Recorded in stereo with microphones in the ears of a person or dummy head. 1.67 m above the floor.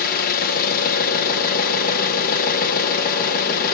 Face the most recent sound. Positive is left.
turn(degrees=50)  # may be behind; listen again after turning